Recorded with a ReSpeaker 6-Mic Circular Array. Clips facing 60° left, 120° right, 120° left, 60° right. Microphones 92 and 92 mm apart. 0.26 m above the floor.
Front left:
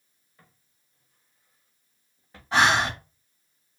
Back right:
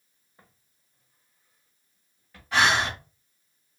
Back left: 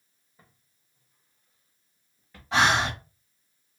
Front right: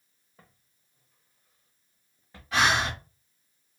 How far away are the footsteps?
About 1.5 m.